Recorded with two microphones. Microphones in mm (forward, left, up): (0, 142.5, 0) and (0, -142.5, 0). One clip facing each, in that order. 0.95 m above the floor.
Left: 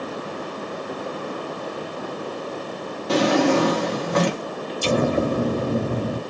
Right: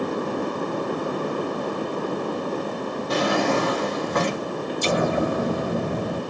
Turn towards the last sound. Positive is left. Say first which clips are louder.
# left 3 dB
turn(degrees=35)  # may be behind; listen again after turning